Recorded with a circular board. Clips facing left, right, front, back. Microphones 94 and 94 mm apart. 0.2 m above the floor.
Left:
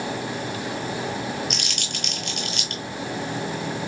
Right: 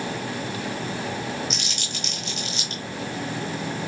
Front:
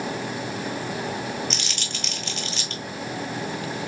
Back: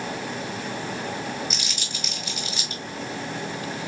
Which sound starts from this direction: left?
Crumpling, at 1.5 s.